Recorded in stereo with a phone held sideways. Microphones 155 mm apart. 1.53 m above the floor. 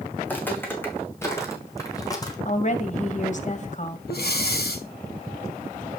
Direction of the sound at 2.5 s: 50° left (ahead or behind).